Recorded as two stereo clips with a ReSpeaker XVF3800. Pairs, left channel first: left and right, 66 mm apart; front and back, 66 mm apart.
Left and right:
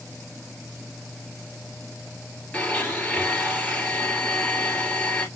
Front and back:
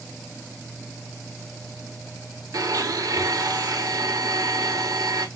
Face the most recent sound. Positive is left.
turn(degrees=160)